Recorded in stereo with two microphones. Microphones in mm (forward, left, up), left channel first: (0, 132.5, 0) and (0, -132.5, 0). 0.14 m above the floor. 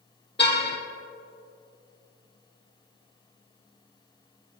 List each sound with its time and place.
0.4 s a car horn: 40° left (ahead or behind), 2.5 m